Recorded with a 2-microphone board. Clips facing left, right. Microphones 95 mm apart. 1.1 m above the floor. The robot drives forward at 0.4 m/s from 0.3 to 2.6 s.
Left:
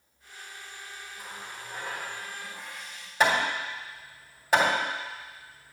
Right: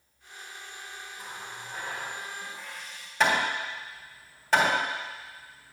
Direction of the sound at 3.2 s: 10° left (ahead or behind).